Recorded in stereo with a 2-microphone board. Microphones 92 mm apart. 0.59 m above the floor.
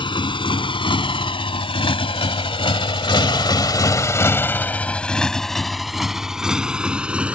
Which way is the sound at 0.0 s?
60° left (ahead or behind).